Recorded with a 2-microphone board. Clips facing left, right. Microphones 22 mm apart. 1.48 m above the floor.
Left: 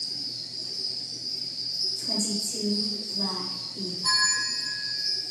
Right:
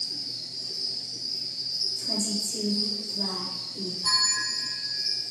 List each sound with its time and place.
0.0 s an insect: centre (ahead or behind), 1.1 m
2.0 s a woman speaking: 80° left, 1.2 m
4.0 s a bell: 5° left (ahead or behind), 1.2 m